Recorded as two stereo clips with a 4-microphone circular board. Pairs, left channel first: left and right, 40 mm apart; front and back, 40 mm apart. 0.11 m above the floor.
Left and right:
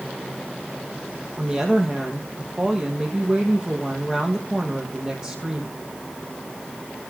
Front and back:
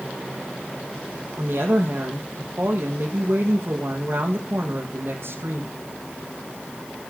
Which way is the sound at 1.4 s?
160° right.